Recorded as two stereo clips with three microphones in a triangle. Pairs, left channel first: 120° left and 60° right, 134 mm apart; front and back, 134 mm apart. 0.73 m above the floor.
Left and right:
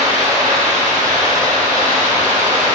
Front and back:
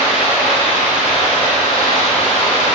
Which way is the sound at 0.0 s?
45° right.